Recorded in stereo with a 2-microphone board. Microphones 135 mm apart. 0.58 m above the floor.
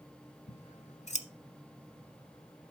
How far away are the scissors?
About 0.9 m.